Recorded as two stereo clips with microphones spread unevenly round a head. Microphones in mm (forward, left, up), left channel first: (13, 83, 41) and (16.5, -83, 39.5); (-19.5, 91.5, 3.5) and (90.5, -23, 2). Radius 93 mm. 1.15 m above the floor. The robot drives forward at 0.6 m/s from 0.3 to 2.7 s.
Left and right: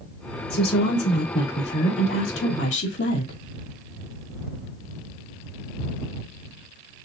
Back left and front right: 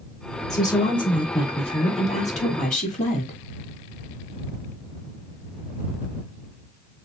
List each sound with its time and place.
0.5 s a woman speaking: 65° left, 3 m; by 3.4 s 95° left, 2.5 m